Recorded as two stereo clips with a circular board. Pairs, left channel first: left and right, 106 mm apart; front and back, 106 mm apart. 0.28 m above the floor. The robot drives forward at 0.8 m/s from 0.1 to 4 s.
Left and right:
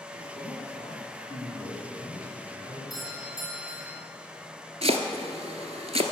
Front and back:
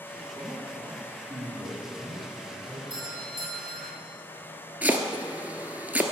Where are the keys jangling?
No keys jangling in this recording.